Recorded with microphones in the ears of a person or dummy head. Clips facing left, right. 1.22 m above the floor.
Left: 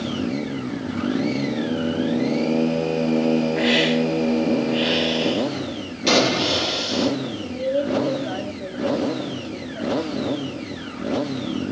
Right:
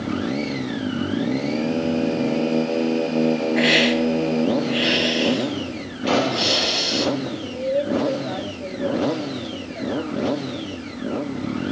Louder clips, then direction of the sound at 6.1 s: Left 1 dB; 60° left (ahead or behind).